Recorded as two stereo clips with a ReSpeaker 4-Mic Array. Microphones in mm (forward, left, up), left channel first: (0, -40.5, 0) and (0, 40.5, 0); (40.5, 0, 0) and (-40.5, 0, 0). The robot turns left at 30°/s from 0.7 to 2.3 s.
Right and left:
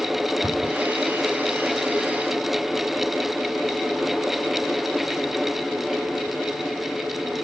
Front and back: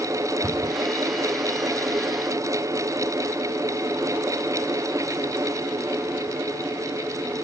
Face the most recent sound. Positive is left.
turn(degrees=100)